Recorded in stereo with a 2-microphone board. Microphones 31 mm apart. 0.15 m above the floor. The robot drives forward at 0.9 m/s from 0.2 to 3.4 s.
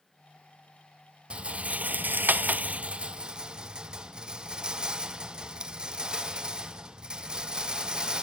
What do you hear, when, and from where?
1.3 s a rattle: 35° right (ahead or behind), 1.0 m; by 8.2 s 30° right (ahead or behind), 1.2 m